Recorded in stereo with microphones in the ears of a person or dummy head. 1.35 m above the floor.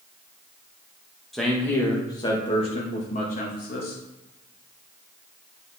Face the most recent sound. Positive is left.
turn(degrees=45)  # may be behind; listen again after turning